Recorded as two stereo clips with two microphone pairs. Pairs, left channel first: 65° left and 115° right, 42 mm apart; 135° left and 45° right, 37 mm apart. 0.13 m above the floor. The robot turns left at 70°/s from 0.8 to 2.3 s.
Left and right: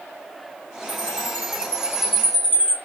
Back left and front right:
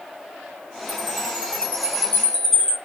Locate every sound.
0.9 s a chime: 120° right, 2.5 m; by 2.8 s 140° left, 2.5 m